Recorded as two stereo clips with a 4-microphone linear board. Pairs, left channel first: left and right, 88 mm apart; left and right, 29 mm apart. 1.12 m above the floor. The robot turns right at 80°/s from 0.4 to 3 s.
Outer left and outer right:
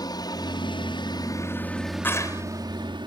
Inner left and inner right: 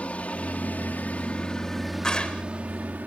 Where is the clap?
25° left; by 2.4 s 55° left.